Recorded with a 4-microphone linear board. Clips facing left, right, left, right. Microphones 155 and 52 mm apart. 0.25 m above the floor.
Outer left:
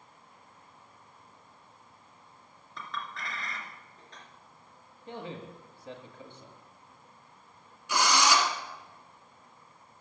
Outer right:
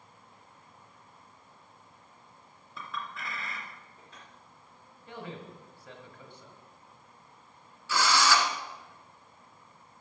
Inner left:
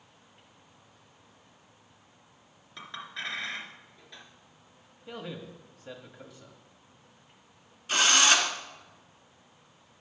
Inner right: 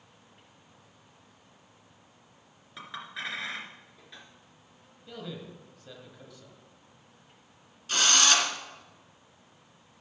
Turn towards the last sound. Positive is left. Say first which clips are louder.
# even, inner left 2 dB
turn(degrees=20)  # may be behind; listen again after turning